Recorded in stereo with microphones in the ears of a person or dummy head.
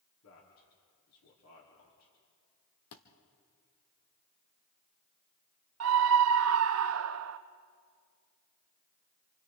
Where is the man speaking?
85° left, 3 m.